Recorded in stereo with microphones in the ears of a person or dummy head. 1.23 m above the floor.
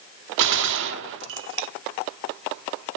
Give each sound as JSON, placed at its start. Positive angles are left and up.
{"t": 0.4, "sound": "a gunshot", "side_deg": -65, "distance_m": 0.7}